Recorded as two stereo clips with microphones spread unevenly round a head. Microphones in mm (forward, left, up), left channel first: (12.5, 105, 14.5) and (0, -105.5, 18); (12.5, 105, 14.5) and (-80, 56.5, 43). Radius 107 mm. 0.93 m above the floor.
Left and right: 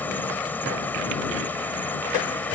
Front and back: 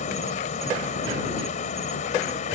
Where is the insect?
5° left.